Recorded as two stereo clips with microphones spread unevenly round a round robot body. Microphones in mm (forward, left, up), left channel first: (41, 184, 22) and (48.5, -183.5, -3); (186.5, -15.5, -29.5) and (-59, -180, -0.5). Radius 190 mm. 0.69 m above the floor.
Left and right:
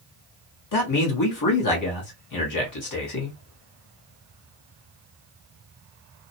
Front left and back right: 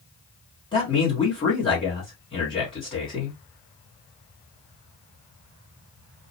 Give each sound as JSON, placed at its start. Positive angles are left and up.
{"t": 0.7, "sound": "a man speaking", "azimuth_deg": 100, "distance_m": 1.4}